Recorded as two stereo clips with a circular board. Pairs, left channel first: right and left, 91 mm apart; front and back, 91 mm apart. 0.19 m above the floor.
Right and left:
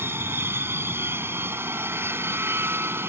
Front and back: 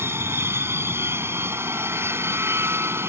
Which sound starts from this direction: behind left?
An aircraft, at 0.0 s.